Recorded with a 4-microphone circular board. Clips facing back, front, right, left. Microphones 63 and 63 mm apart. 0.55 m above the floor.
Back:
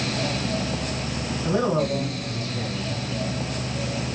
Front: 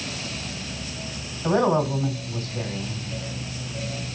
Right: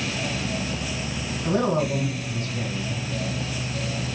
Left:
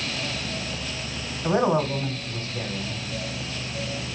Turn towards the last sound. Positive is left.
turn(degrees=50)